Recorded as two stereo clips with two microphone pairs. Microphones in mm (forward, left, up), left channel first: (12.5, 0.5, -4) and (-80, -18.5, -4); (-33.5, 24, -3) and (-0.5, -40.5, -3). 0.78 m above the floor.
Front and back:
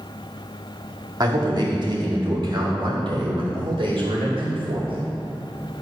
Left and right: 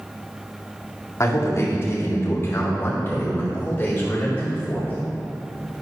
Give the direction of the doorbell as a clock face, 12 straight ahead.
I don't hear a doorbell.